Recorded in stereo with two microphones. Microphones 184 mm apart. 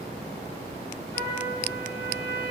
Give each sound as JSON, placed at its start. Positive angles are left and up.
{"t": 1.1, "sound": "a trumpet", "side_deg": -75, "distance_m": 5.0}